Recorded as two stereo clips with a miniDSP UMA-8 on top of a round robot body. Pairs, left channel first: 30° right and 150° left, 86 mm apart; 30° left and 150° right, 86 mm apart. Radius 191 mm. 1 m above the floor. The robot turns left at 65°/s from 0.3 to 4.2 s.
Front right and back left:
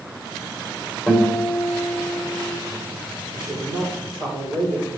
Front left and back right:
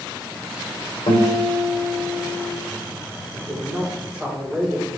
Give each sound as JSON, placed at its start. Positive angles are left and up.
{"t": 1.1, "sound": "a guitar", "azimuth_deg": 35, "distance_m": 3.5}
{"t": 3.3, "sound": "a woman speaking", "azimuth_deg": -165, "distance_m": 5.0}